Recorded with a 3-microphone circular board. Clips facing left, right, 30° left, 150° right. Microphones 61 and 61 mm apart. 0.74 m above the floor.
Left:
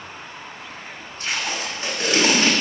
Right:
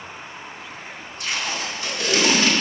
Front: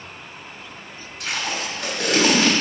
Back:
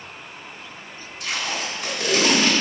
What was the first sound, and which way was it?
Tape being pulled, 40° left.